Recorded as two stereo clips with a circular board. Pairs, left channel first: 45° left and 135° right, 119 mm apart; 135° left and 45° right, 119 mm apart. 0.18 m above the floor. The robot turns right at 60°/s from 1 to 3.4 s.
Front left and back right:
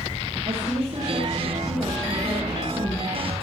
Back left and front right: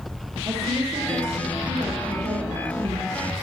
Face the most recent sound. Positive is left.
turn(degrees=45)